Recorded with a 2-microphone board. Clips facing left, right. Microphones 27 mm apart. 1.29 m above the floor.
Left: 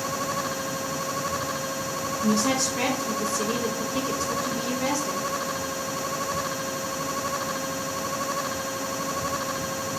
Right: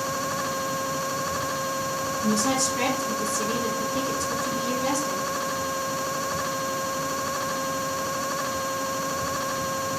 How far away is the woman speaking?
About 1.1 m.